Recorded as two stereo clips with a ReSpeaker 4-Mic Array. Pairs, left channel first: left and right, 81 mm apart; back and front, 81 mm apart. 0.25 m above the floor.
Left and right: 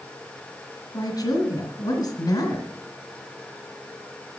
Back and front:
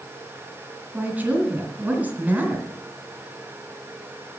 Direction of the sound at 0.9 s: 65° left.